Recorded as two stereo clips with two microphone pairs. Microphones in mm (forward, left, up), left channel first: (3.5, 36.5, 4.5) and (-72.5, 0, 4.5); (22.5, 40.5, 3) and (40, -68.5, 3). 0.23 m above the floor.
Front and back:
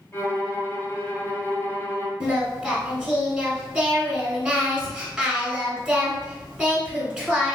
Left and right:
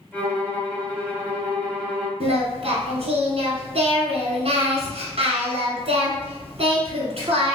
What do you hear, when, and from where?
0.1 s a violin: 40° left, 1.0 m
2.2 s singing: 80° right, 1.0 m